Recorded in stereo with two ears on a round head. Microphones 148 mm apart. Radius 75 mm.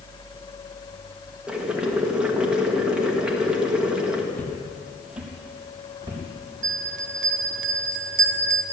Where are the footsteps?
10° left (ahead or behind), 2.5 m; by 6.2 s 20° right (ahead or behind), 4 m.